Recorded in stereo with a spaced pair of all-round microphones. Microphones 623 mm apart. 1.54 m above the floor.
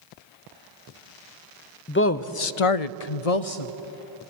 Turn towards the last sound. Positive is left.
turn(degrees=55)  # may be behind; listen again after turning